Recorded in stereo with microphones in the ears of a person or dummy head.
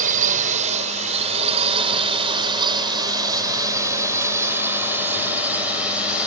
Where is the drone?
50° right (ahead or behind); by 6.3 s 5° right (ahead or behind).